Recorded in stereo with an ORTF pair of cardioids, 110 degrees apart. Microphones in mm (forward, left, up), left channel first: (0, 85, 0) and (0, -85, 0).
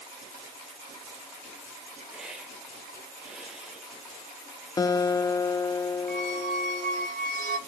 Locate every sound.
2.1 s a hiss: 5° right, 2.5 m
4.8 s a guitar: 20° left, 0.5 m
6.1 s a squeak: 55° right, 2.5 m